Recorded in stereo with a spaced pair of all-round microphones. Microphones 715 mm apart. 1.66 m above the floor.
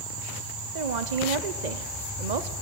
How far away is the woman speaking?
About 1.0 m.